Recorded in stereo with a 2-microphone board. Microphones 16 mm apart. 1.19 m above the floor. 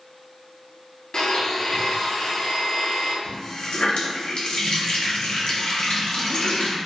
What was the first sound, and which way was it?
A blender, 50° left (ahead or behind).